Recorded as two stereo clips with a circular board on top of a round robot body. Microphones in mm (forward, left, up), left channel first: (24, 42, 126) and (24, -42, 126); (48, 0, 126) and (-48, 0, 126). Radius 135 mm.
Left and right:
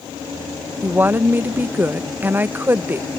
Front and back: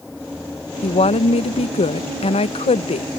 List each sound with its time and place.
0.8 s a woman speaking: 20° right